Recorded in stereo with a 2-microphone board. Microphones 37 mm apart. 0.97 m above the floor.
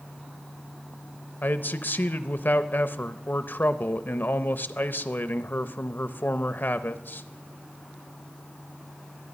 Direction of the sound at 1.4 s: 60° left (ahead or behind).